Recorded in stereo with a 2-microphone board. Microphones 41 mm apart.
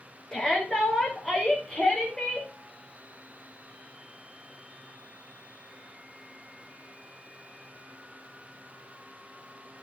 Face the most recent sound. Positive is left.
turn(degrees=15)  # may be behind; listen again after turning